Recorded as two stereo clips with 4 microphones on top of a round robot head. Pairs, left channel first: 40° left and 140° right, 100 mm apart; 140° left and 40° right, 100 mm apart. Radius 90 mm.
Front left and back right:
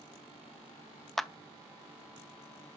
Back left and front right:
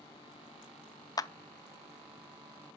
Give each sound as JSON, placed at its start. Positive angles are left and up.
{"t": 1.2, "sound": "a clap", "azimuth_deg": 125, "distance_m": 0.5}